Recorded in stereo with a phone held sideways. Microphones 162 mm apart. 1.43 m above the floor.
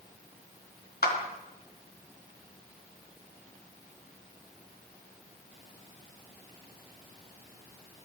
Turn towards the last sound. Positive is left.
turn(degrees=85)